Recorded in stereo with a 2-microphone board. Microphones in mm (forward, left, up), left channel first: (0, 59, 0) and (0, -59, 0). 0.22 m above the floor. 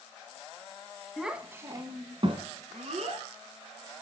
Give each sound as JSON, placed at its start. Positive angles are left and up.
{"t": 1.2, "sound": "a child speaking", "side_deg": 0, "distance_m": 1.0}